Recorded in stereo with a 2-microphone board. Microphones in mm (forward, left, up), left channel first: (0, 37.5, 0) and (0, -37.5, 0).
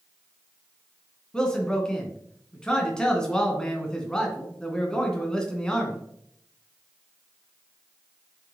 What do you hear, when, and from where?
1.3 s a man speaking: 10° left (ahead or behind), 2 m